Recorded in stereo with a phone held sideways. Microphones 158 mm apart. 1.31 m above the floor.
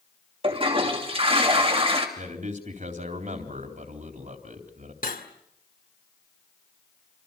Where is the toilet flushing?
35° right (ahead or behind), 3 m.